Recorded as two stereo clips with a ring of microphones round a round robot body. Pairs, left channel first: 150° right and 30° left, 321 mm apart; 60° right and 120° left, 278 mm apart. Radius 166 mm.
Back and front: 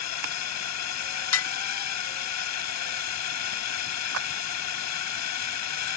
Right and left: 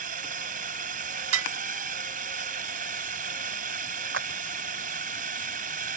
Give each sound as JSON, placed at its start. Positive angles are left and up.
{"t": 0.0, "sound": "a drone", "azimuth_deg": 180}
{"t": 1.3, "sound": "dishes clattering", "azimuth_deg": 165}
{"t": 4.1, "sound": "a clap", "azimuth_deg": 75}